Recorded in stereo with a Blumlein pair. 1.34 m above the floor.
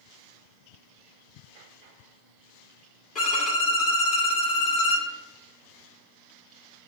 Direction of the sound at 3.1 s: 20° left.